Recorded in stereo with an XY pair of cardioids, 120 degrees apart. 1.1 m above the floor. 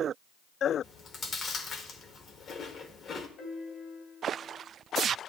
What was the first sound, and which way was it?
Chewing, 45° left.